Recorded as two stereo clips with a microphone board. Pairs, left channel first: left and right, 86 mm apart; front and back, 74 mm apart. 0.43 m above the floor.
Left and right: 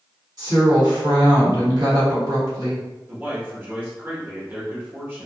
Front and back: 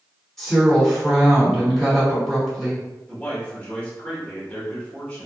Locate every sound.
0.4 s a woman speaking: 85° right, 1.6 m
3.1 s a man speaking: 50° right, 1.1 m